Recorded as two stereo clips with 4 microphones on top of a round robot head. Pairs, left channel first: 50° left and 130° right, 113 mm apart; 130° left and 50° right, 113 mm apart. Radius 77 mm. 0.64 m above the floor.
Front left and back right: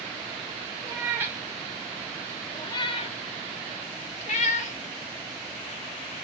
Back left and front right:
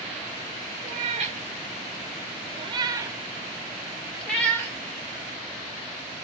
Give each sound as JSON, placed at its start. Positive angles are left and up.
{"t": 0.8, "sound": "a cat meowing", "azimuth_deg": -65, "distance_m": 1.1}